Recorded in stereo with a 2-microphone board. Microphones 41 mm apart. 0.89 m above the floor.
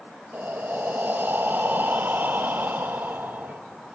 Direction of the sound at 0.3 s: 50° right (ahead or behind).